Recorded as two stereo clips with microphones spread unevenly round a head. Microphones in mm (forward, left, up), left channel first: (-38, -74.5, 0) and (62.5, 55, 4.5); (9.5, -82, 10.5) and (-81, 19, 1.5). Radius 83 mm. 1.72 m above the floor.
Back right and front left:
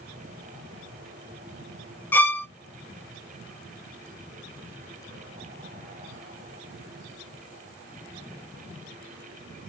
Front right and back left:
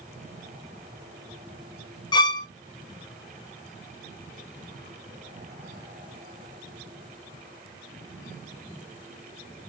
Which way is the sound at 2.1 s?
55° right.